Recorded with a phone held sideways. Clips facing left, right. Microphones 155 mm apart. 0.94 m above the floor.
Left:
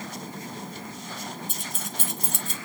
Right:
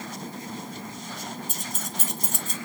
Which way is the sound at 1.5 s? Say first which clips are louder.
Right 1 dB; 40° right (ahead or behind).